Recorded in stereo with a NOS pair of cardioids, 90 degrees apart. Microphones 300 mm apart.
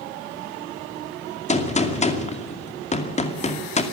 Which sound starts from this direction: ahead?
A gunshot, at 1.5 s.